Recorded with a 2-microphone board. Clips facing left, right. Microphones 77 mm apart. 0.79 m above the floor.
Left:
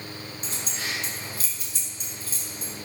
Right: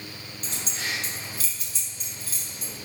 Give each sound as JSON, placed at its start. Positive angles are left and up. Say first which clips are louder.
{"t": 0.4, "sound": "keys jangling", "louder": "right 1 dB", "side_deg": 40, "distance_m": 1.6}